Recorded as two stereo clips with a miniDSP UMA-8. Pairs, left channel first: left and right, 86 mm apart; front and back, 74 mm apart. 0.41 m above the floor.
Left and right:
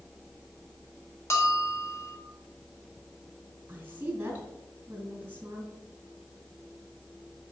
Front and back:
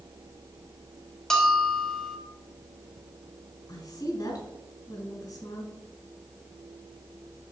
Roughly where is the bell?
Left.